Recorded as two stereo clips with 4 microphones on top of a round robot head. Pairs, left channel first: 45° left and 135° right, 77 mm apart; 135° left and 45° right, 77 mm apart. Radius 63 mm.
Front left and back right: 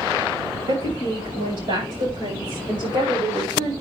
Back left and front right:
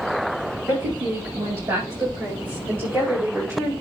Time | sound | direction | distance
0.7 | a woman speaking | 115° right | 8.5 m